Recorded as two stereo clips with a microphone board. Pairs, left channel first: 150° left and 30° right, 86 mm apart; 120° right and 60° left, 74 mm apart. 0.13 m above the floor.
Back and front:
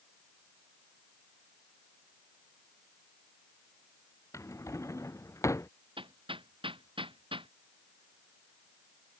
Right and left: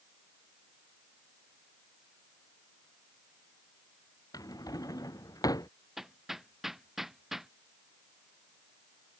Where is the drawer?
155° right.